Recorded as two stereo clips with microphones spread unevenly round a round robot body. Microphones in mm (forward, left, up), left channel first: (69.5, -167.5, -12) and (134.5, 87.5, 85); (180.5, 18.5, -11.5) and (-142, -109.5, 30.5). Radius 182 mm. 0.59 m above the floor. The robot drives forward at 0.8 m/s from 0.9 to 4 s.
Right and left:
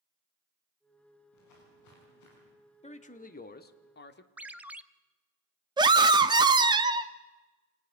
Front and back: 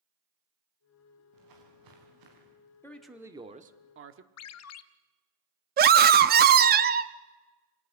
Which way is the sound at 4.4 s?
20° right.